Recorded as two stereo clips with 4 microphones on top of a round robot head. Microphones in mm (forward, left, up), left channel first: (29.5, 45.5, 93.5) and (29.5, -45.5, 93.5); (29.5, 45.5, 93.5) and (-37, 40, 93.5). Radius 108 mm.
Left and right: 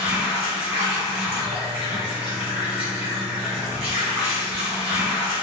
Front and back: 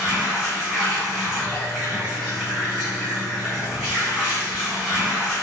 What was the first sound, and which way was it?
Running water, 95° right.